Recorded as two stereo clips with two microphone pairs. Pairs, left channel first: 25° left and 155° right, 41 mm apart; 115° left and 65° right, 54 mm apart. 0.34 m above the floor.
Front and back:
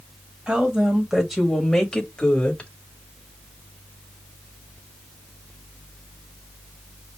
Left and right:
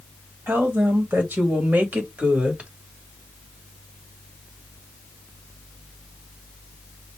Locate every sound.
0.5 s a woman speaking: 90° right, 2 m; by 2.7 s 15° right, 1.9 m